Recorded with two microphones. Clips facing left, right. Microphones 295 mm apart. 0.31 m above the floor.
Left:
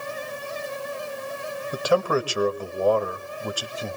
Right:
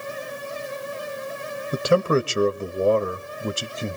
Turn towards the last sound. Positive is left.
turn(degrees=-25)  # may be behind; listen again after turning